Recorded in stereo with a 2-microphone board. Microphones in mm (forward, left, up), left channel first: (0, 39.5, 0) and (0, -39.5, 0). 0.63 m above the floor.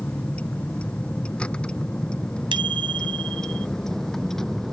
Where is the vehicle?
15° left (ahead or behind); by 4.7 s 5° left (ahead or behind).